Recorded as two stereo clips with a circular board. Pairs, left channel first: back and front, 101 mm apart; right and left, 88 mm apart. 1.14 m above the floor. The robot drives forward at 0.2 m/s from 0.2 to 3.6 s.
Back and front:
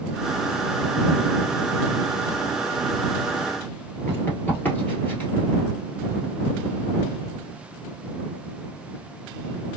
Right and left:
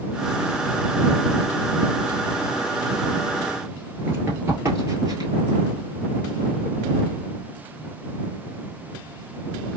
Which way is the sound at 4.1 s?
130° left.